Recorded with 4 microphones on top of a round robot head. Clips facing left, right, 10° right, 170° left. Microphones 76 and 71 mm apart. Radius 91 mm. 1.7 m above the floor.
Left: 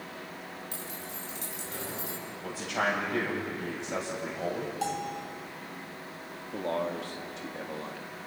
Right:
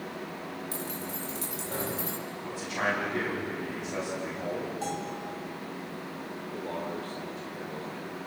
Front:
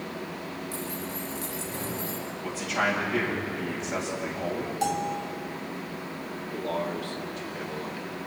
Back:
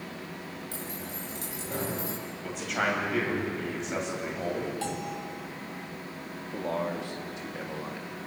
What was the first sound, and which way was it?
Keys jangling, 140° right.